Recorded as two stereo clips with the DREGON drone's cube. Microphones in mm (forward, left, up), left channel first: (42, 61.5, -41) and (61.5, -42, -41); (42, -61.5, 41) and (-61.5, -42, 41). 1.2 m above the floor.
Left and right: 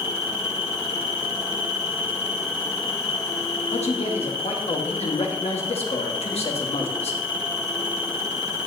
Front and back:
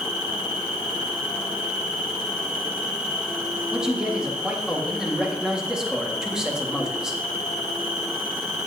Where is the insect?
90° left, 1.8 m.